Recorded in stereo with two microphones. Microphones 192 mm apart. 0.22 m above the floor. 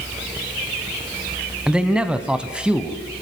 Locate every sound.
1.7 s a man speaking: 5° right (ahead or behind), 1.7 m